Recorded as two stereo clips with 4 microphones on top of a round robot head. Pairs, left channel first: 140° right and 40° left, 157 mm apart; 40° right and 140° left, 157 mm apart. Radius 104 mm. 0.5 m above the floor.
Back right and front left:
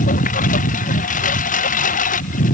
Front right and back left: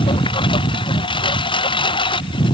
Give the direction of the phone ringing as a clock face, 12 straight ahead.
I don't hear a phone ringing.